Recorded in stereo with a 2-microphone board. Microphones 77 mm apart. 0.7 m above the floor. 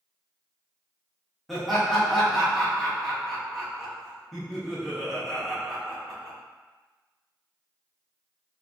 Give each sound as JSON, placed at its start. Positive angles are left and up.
{"t": 1.5, "sound": "laughter", "side_deg": 0, "distance_m": 0.8}